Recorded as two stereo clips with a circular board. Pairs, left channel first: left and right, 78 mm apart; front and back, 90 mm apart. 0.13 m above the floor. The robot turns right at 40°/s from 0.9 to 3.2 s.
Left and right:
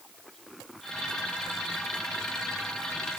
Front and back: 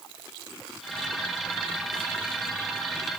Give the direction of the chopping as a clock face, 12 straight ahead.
No chopping in this recording.